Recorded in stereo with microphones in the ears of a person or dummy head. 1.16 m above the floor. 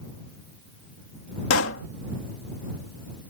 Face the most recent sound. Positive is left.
turn(degrees=70)  # may be behind; listen again after turning